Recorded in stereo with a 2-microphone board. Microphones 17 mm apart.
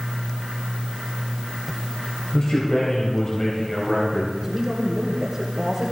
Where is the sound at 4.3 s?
35° right (ahead or behind), 2.5 m.